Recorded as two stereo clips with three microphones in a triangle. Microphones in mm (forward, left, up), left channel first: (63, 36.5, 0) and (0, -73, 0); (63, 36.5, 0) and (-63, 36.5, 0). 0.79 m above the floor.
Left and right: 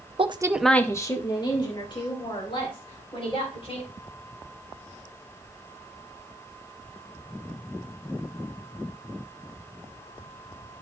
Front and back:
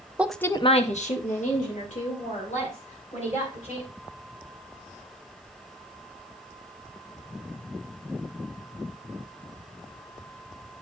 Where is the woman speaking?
105° right, 0.7 m; by 3.9 s 15° left, 5.5 m.